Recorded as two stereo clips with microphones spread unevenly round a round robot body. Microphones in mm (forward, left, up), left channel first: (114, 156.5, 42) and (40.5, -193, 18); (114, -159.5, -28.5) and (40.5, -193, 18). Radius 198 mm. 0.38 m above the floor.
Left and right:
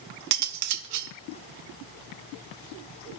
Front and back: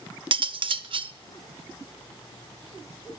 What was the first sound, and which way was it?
Cutlery clinking, 105° right.